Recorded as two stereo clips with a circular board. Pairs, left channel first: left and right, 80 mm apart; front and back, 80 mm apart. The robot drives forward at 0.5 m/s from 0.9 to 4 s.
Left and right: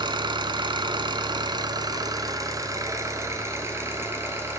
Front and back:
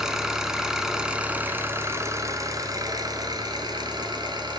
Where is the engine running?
95° right, 1.0 m; by 4.6 s 150° right, 1.9 m.